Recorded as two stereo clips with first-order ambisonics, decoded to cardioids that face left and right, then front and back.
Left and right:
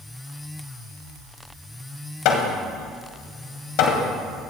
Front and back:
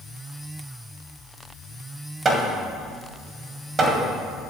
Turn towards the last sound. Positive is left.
turn(degrees=115)